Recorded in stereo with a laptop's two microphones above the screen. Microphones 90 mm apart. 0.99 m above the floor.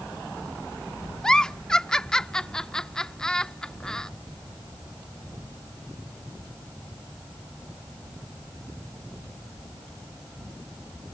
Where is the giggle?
10° left (ahead or behind).